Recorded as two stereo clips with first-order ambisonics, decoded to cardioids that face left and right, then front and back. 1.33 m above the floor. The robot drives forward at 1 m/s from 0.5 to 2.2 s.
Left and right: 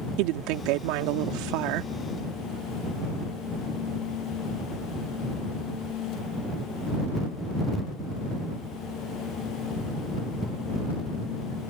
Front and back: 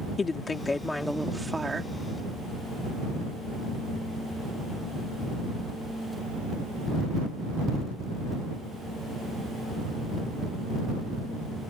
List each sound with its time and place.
0.2 s a woman speaking: 75° right; by 1.9 s 105° right